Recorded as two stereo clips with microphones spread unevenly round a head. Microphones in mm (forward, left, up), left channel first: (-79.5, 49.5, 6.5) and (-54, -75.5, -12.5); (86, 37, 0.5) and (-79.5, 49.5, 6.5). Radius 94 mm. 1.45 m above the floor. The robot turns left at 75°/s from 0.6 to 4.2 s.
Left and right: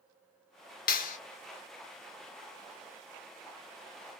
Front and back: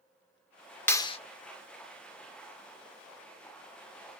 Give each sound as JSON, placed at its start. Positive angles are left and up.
{"t": 0.9, "sound": "a clap", "azimuth_deg": 75, "distance_m": 0.5}